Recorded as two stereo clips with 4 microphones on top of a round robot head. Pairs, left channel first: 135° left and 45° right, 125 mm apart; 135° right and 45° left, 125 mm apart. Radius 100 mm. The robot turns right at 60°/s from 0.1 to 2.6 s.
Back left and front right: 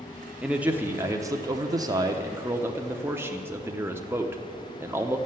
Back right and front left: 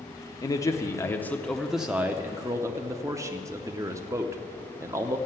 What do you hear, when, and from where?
0.4 s a man speaking: 120° right, 0.9 m; by 5.2 s 10° left, 0.9 m